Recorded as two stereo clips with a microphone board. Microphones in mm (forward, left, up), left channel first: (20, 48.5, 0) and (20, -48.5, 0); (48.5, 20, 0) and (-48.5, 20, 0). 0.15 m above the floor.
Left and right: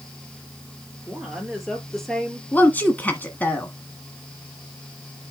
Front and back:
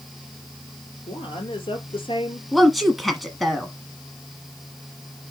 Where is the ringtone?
I don't hear a ringtone.